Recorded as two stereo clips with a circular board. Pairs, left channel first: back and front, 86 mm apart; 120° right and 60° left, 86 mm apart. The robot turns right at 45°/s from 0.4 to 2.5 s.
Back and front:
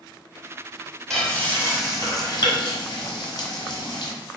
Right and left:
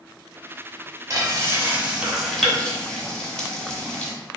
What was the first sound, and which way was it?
Frying, 95° left.